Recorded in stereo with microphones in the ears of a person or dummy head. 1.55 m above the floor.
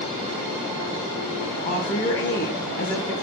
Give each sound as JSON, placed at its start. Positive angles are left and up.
{"t": 1.6, "sound": "a woman speaking", "side_deg": 20, "distance_m": 1.0}